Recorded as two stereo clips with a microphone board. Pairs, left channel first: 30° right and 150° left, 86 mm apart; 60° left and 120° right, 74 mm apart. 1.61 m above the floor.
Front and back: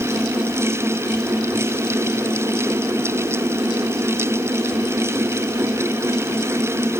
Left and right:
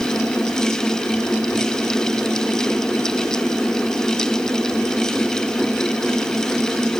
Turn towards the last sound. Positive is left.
No sound to turn to.